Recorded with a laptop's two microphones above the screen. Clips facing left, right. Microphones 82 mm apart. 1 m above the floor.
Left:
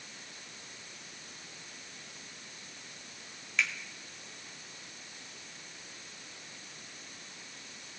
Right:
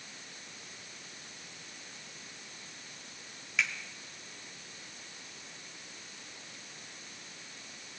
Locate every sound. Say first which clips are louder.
3.6 s a finger snap: even; 5° right (ahead or behind), 2.5 m